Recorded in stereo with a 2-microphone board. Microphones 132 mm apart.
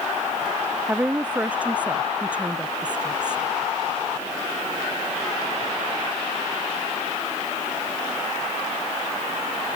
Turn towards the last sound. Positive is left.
turn(degrees=-10)  # may be behind; listen again after turning